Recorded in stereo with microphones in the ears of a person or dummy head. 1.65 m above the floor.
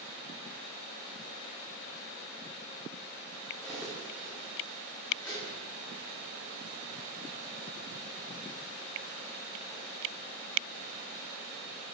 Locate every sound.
3.6 s cutlery clinking: centre (ahead or behind), 1.8 m